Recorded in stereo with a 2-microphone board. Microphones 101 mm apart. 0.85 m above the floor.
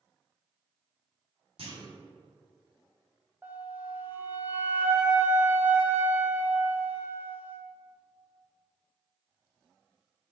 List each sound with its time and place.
1.6 s a clunk: 70° right (ahead or behind), 1.7 m
3.4 s a flute: 15° right (ahead or behind), 0.9 m